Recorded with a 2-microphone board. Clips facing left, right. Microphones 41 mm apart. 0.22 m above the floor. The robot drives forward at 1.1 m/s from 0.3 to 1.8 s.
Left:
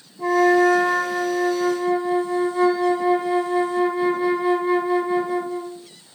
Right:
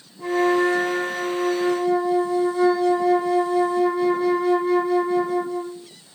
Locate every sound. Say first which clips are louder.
0.2 s a flute: left 3 dB; 25° left (ahead or behind), 1.2 m; by 5.9 s 20° left (ahead or behind), 1.4 m